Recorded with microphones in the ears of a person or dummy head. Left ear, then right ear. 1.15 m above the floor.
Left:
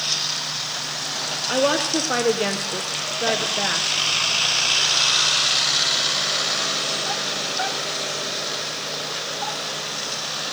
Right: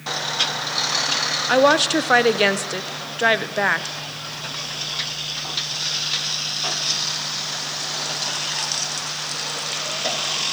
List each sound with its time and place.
1.5 s a woman speaking: 45° right (ahead or behind), 0.6 m